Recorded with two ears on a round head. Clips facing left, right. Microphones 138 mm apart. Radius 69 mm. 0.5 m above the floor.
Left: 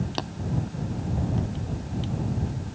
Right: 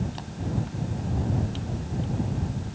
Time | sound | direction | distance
0.2 | tapping | 80° left | ?